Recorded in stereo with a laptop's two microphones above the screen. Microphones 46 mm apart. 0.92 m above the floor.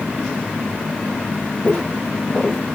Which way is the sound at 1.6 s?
25° left (ahead or behind).